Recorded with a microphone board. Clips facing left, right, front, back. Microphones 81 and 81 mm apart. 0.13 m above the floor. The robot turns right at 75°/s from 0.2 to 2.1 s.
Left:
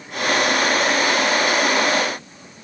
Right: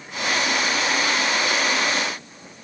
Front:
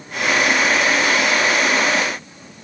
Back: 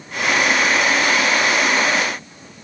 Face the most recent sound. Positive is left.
No sound to turn to.